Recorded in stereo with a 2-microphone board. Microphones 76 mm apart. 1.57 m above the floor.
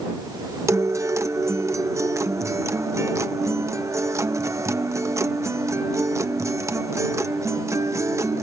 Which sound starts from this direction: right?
A guitar, at 0.7 s.